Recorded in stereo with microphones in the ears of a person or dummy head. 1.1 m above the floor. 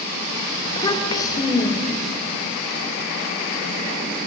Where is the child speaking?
25° left (ahead or behind), 2.5 m.